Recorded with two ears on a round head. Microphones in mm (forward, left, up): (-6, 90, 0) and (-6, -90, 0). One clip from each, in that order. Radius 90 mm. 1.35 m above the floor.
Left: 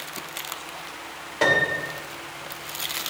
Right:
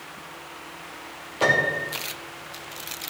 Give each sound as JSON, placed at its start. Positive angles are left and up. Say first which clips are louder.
{"t": 1.4, "sound": "a piano", "louder": "even", "side_deg": 65, "distance_m": 3.0}